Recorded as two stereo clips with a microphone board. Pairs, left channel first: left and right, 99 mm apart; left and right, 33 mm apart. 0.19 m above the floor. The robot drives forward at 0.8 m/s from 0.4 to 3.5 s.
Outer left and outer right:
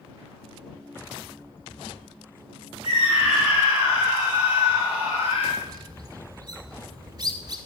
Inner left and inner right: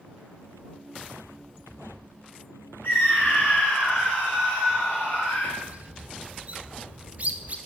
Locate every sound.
2.8 s a scream: 55° left (ahead or behind), 4.5 m; by 5.5 s 60° left (ahead or behind), 4.5 m
5.6 s a bird: 40° right (ahead or behind), 0.9 m